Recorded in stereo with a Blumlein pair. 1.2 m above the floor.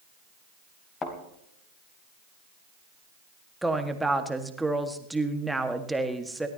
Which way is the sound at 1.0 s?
20° left.